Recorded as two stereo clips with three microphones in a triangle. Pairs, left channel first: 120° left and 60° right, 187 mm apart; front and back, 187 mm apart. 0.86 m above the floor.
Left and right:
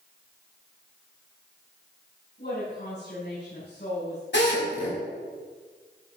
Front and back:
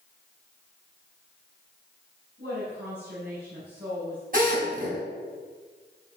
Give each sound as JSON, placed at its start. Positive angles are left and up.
{"t": 2.4, "sound": "a woman speaking", "azimuth_deg": 150, "distance_m": 5.5}
{"t": 4.3, "sound": "a drill", "azimuth_deg": 140, "distance_m": 5.5}